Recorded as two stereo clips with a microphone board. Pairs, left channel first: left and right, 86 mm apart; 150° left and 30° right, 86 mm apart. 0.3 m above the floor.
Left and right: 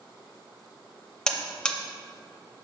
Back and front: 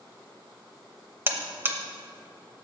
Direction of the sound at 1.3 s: 15° left.